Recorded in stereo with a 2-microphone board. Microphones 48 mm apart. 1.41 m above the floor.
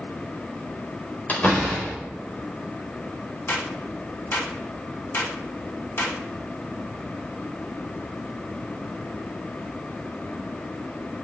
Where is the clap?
60° left (ahead or behind), 3 m.